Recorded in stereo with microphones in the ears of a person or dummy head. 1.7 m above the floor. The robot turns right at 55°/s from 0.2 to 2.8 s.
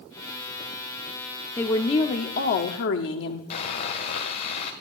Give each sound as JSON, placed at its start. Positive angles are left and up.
{"t": 1.6, "sound": "a woman speaking", "azimuth_deg": 10, "distance_m": 1.4}
{"t": 3.5, "sound": "sawing", "side_deg": 50, "distance_m": 1.7}